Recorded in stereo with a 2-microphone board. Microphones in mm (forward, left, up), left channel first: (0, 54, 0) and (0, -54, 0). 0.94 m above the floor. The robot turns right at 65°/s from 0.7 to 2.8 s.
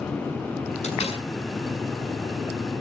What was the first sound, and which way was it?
A door slam, 90° left.